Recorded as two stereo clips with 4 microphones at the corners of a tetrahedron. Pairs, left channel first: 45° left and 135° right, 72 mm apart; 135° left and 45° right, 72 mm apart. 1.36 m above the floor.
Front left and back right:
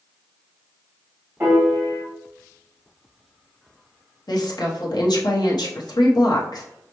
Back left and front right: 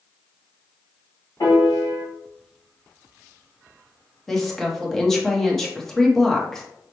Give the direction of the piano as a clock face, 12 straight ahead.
6 o'clock.